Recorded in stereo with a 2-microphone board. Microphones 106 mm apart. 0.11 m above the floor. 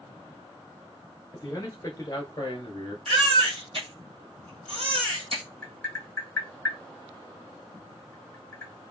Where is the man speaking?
25° left (ahead or behind), 1.3 m; by 3.0 s 40° left (ahead or behind), 1.3 m.